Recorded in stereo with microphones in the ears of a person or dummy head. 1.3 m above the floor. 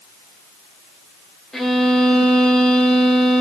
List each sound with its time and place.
1.5 s a violin: 5° left (ahead or behind), 0.7 m